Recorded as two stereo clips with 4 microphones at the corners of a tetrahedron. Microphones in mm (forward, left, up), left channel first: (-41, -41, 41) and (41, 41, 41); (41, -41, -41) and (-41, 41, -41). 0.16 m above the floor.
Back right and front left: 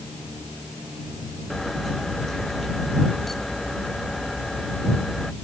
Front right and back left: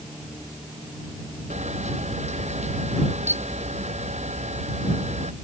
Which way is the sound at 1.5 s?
135° left.